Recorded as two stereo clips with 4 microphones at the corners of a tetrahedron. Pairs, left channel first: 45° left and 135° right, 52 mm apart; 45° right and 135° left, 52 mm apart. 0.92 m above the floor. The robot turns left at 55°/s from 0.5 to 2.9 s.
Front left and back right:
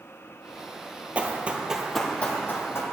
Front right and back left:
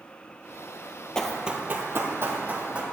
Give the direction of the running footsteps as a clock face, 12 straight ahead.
4 o'clock.